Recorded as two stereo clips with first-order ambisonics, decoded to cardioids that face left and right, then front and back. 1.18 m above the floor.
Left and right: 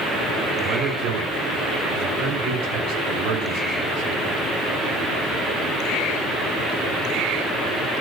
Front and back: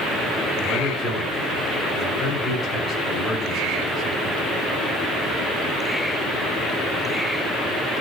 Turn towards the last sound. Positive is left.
turn(degrees=-75)